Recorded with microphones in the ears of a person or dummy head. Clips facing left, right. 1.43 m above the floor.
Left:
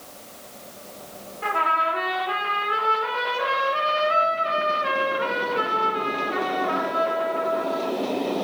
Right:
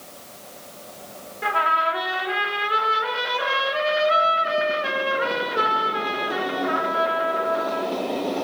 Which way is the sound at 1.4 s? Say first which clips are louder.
Right 1 dB; 20° right (ahead or behind).